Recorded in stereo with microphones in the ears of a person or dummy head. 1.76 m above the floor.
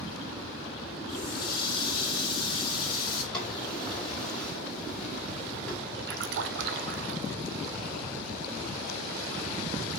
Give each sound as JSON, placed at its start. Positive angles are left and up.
{"t": 1.1, "sound": "a running tap", "side_deg": 25, "distance_m": 2.5}
{"t": 3.3, "sound": "a drawer", "side_deg": 5, "distance_m": 5.0}
{"t": 6.1, "sound": "a splash", "side_deg": -70, "distance_m": 0.9}